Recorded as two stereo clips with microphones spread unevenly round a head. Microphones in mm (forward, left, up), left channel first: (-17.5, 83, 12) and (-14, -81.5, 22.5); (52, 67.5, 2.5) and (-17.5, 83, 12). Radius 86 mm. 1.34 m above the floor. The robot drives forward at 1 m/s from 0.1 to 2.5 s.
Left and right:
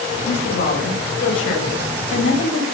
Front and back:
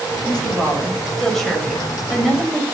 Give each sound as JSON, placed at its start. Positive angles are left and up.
{"t": 0.2, "sound": "a woman speaking", "azimuth_deg": 65, "distance_m": 8.0}